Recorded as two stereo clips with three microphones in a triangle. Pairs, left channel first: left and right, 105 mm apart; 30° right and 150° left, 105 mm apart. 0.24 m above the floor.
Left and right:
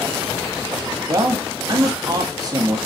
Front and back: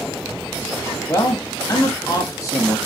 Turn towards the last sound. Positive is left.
turn(degrees=-70)